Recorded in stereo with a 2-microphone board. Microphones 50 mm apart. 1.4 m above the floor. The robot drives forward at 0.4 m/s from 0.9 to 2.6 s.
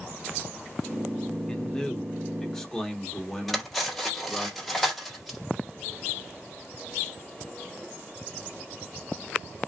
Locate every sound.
1.5 s a man speaking: 15° left (ahead or behind), 1.0 m; by 4.5 s 10° left (ahead or behind), 1.4 m
3.5 s cutlery clinking: 5° left (ahead or behind), 1.5 m